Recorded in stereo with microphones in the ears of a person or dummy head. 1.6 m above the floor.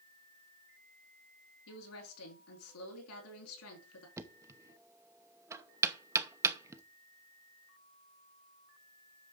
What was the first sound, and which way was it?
A woman speaking, 80° left.